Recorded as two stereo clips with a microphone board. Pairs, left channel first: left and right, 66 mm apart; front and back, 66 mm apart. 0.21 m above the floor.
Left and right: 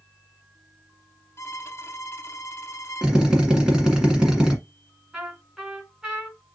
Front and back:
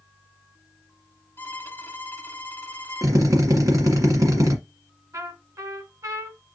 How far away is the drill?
About 1.5 m.